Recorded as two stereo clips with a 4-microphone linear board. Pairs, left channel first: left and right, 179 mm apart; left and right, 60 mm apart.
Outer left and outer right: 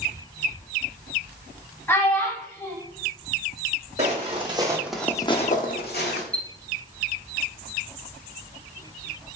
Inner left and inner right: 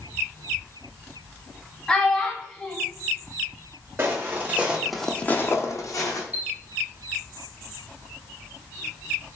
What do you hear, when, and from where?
1.9 s a child speaking: 10° left (ahead or behind), 0.6 m
4.0 s footsteps: 40° right (ahead or behind), 1.0 m; by 6.2 s 75° left (ahead or behind), 0.9 m
6.3 s a chime: 20° right (ahead or behind), 0.7 m